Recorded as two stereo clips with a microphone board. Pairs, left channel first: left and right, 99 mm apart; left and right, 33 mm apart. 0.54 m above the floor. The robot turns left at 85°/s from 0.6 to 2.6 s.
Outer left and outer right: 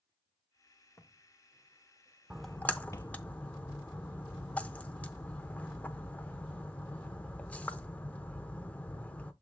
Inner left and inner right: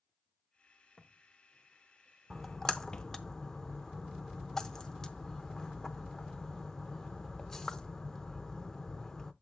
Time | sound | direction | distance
1.0 | footsteps | 30° left (ahead or behind) | 1.3 m
2.3 | a splash | 10° right (ahead or behind) | 0.6 m